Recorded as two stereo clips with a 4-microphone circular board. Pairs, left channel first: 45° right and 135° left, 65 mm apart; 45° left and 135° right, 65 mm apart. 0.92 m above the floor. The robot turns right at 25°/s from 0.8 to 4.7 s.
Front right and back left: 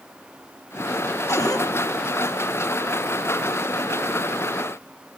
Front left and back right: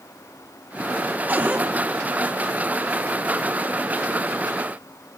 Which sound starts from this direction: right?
A cupboard door, at 1.3 s.